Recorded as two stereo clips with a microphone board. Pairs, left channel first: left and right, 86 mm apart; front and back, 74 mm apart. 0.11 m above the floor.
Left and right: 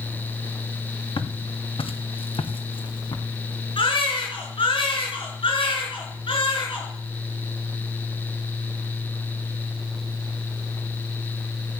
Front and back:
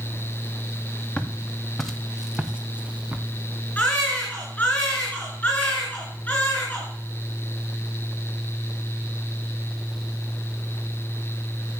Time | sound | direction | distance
1.2 | footsteps | 75° left | 2.5 m
3.8 | a baby crying | 75° left | 9 m